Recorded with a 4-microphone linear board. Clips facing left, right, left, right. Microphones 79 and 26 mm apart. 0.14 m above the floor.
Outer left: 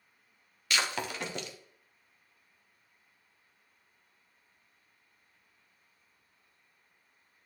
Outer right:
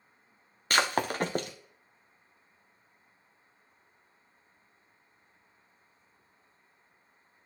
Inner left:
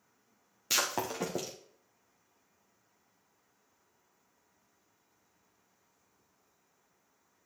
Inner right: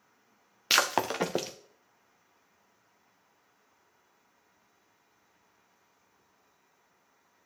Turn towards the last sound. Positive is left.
turn(degrees=-45)  # may be behind; listen again after turning